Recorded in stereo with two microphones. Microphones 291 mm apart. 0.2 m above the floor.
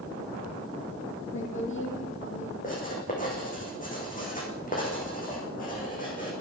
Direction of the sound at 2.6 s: 30° left (ahead or behind).